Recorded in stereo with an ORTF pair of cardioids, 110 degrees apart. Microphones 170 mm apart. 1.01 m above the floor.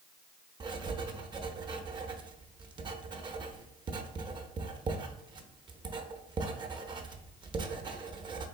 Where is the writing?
25° right, 0.7 m.